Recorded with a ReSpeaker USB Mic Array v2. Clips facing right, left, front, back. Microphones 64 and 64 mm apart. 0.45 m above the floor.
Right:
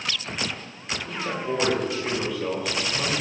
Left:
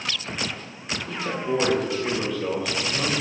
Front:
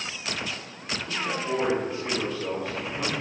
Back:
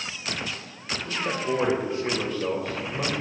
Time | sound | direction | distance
1.1 | a man speaking | 175° right | 1.5 m